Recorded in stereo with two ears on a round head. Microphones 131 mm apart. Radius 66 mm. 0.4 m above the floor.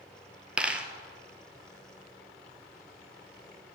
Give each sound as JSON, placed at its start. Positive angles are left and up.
{"t": 0.6, "sound": "a dropped coin", "side_deg": -10, "distance_m": 1.1}